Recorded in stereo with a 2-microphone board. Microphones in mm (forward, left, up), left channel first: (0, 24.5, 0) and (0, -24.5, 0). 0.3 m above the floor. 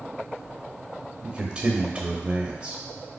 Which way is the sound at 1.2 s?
20° right (ahead or behind).